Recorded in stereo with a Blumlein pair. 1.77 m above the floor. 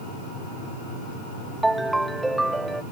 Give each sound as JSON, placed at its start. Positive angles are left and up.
{"t": 1.6, "sound": "a ringtone", "azimuth_deg": -5}